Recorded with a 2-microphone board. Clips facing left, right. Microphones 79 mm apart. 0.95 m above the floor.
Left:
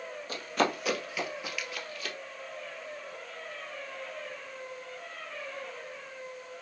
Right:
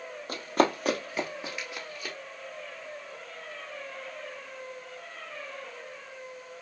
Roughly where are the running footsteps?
Right.